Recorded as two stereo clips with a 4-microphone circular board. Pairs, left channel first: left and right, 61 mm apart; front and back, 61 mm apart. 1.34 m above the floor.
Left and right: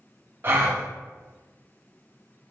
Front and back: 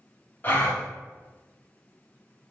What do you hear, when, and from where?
0.4 s a gasp: 50° right, 0.5 m